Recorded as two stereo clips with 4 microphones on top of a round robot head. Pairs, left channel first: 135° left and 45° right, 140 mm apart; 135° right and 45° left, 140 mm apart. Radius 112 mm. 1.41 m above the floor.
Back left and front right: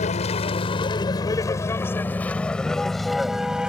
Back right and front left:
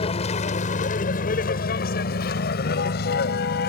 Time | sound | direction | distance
0.0 | a vehicle | 175° left | ?